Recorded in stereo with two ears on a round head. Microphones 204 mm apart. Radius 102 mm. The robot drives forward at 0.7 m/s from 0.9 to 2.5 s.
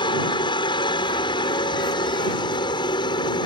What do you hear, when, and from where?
0.0 s a helicopter: 20° left (ahead or behind)